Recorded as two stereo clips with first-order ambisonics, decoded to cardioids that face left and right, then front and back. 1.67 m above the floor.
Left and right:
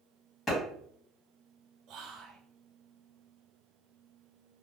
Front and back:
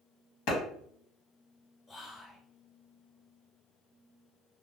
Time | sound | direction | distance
0.5 | a clap | 20° left | 1.5 m
1.9 | whispering | 65° right | 0.5 m